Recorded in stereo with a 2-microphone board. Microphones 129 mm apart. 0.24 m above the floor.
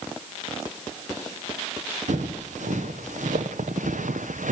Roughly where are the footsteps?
Right.